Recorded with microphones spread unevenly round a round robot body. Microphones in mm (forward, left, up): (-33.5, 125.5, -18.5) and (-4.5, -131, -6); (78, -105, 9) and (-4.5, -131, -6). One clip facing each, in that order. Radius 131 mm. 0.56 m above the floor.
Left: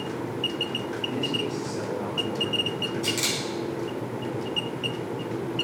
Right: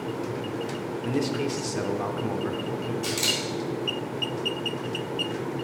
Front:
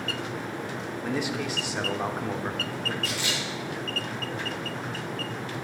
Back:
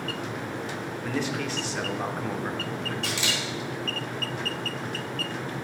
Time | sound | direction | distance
1.0 | a man speaking | 65° right | 1.1 m
3.0 | a camera shutter | 175° right | 3.5 m